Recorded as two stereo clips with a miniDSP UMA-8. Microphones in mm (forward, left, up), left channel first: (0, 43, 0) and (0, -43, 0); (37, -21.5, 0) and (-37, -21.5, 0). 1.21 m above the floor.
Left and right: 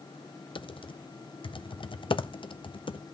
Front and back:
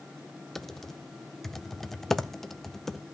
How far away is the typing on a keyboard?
About 0.6 m.